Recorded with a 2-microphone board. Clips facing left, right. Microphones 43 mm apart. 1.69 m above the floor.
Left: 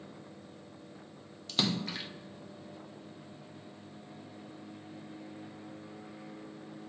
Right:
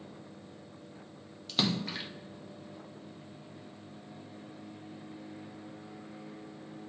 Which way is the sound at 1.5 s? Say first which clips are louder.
Right 1 dB; 5° right (ahead or behind).